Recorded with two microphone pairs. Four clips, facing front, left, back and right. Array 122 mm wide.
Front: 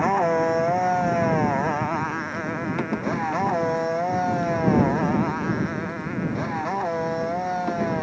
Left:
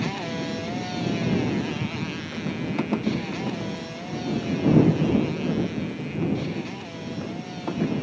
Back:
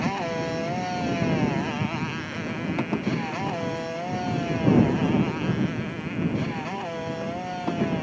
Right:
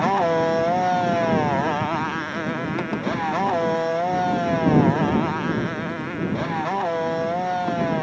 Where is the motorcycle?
55° right; by 8.0 s 65° right.